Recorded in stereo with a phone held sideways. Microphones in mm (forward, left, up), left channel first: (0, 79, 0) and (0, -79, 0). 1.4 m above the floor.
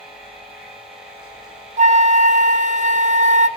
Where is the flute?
50° right (ahead or behind), 0.6 m.